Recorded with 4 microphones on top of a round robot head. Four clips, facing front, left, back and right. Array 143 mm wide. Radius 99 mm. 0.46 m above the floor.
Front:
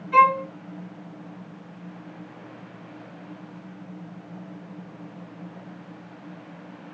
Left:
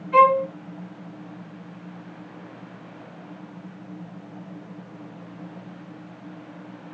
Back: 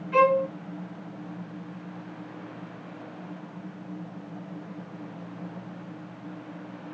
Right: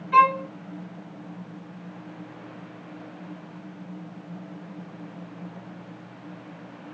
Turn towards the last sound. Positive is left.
turn(degrees=-70)